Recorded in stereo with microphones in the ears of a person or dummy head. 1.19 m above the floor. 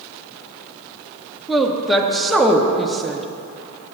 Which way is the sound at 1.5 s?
Centre (ahead or behind).